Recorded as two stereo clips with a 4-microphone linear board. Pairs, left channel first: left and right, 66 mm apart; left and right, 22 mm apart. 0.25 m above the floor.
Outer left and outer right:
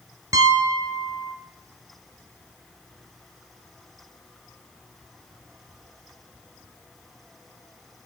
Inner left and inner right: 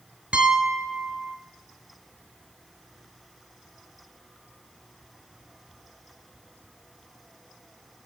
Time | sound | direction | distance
0.3 | a piano | 65° right (ahead or behind) | 0.7 m